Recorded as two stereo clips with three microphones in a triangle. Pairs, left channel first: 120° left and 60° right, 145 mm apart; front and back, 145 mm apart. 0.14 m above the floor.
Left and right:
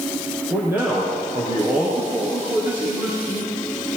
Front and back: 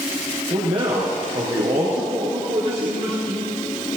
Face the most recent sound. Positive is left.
turn(degrees=-135)